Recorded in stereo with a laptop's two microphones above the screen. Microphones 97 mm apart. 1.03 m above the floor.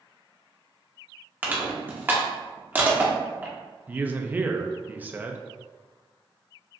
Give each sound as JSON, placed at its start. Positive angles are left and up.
{"t": 1.4, "sound": "crushing", "side_deg": -20, "distance_m": 1.0}
{"t": 3.9, "sound": "a man speaking", "side_deg": -20, "distance_m": 0.5}